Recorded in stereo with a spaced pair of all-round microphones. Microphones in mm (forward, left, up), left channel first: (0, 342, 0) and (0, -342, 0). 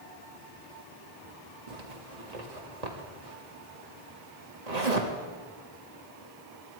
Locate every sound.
1.7 s a zipper: 65° right (ahead or behind), 1.9 m